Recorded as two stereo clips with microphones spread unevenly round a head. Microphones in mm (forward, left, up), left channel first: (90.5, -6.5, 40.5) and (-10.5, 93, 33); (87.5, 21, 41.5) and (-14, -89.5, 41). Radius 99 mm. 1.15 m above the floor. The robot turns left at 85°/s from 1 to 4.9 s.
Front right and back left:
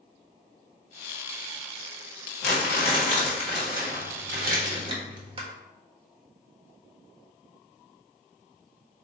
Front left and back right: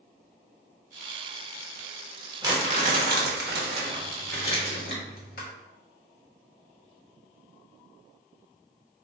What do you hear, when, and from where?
2.4 s crumpling: 65° right, 1.3 m; by 5.5 s 85° left, 1.3 m